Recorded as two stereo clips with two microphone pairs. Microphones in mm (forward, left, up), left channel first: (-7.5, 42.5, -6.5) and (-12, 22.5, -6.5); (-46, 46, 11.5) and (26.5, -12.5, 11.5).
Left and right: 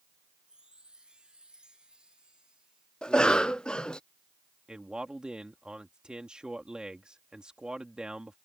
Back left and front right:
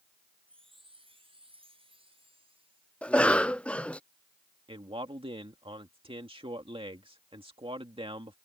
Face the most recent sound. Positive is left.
turn(degrees=-55)